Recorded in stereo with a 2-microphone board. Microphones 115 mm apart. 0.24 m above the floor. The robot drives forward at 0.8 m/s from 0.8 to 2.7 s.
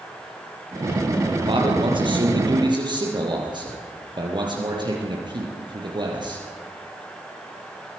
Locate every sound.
1.5 s a man speaking: 50° right (ahead or behind), 5 m; by 6.4 s 40° right (ahead or behind), 6 m